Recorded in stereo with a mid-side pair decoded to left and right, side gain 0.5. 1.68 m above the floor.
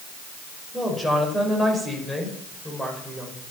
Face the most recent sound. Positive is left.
turn(degrees=0)